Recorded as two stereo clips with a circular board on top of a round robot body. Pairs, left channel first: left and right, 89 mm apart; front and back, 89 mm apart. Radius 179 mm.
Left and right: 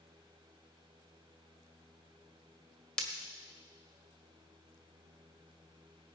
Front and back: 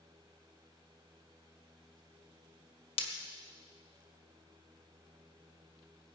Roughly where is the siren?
I don't hear a siren.